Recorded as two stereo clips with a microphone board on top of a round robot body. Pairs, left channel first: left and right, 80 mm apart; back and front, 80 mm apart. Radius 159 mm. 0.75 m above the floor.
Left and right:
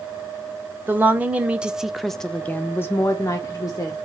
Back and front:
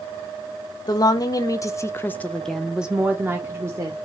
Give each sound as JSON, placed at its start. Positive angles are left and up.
{"t": 0.9, "sound": "a woman speaking", "azimuth_deg": -155, "distance_m": 1.1}